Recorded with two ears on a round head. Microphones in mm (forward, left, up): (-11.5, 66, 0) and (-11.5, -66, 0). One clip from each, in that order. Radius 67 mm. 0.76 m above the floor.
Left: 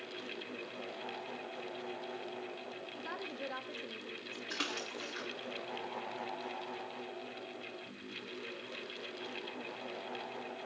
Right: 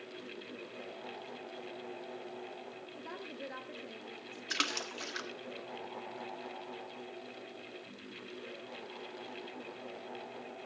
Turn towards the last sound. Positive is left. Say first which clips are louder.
# right 4 dB
turn(degrees=-60)  # may be behind; listen again after turning